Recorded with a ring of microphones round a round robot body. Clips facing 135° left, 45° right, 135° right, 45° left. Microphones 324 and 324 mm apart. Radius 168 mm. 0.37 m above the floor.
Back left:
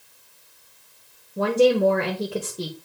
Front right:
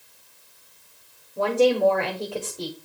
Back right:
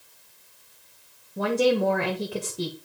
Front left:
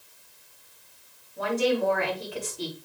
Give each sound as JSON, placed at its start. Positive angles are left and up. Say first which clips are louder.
{"t": 1.4, "sound": "a woman speaking", "louder": "back left 2 dB, back right 3 dB", "azimuth_deg": -160, "distance_m": 1.4}